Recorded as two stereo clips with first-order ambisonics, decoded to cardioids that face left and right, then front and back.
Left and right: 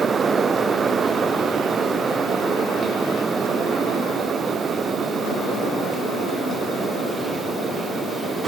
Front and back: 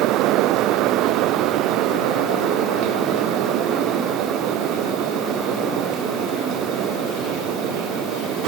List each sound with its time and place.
Only background noise.